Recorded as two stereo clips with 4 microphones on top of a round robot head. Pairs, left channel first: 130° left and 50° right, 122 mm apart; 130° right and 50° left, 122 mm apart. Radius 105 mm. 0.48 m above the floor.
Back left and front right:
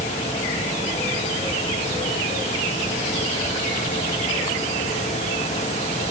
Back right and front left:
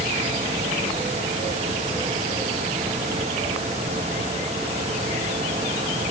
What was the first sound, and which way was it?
Only background noise.